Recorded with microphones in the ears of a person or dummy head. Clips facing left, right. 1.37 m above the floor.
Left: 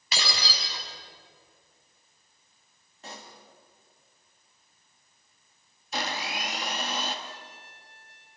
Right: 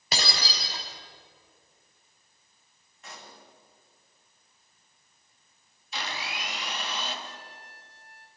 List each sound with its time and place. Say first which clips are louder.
0.1 s breaking glass: right 1 dB; 40° right (ahead or behind), 4.5 m
3.0 s a pop: left 3 dB; 35° left (ahead or behind), 3 m
5.9 s a blender: left 4 dB; 40° left (ahead or behind), 2.5 m
7.2 s a trumpet: even; 80° left, 3 m